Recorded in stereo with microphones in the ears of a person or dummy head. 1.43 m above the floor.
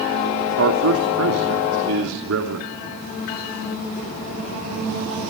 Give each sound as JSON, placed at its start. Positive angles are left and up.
{"t": 0.6, "sound": "a man speaking", "side_deg": -80, "distance_m": 2.5}